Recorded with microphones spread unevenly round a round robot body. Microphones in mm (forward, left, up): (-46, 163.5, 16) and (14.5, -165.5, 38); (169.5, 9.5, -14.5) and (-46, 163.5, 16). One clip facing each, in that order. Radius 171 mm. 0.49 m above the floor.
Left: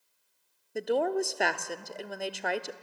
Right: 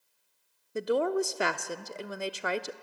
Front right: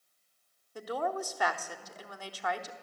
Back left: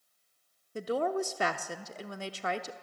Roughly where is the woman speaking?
Behind.